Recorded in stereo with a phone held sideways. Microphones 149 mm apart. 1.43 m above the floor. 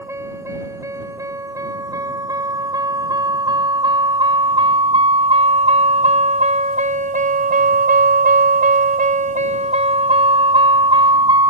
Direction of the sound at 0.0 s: 20° right (ahead or behind).